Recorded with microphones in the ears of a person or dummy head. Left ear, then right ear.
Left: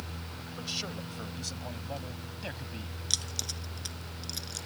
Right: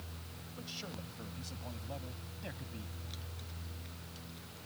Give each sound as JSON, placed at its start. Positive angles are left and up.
{"t": 0.5, "sound": "a man speaking", "side_deg": 25}
{"t": 3.1, "sound": "keys jangling", "side_deg": 90}